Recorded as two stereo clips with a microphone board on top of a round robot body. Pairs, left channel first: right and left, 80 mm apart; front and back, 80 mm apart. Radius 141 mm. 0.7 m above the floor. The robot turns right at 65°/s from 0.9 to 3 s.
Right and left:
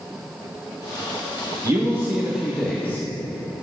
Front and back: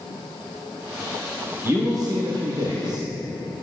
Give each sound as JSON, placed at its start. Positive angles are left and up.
{"t": 1.6, "sound": "a man speaking", "azimuth_deg": 125, "distance_m": 1.9}